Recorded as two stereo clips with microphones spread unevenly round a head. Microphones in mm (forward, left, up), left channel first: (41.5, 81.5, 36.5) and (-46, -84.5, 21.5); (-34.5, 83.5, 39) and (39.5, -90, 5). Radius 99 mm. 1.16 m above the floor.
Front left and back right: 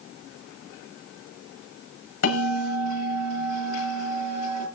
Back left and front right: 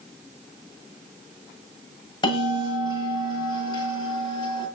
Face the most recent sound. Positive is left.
turn(degrees=45)